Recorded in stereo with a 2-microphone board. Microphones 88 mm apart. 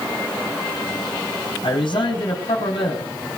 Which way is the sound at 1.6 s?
70° left (ahead or behind).